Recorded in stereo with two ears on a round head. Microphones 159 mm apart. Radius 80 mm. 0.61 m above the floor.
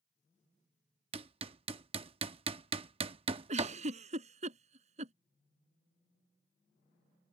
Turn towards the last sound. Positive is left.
turn(degrees=-40)  # may be behind; listen again after turning